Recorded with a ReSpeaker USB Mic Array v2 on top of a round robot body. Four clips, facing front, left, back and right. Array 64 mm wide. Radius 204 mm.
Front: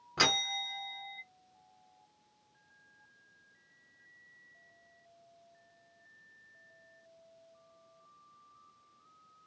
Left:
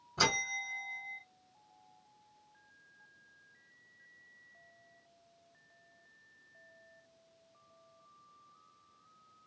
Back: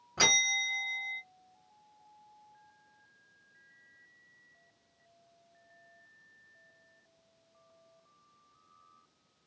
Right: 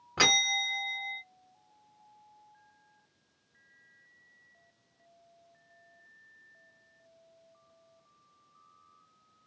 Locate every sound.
0.2 s a bell: 80° right, 0.9 m